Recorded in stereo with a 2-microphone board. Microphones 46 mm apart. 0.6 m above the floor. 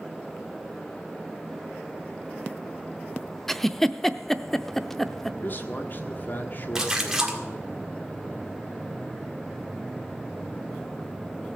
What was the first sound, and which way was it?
A giggle, 5° left (ahead or behind).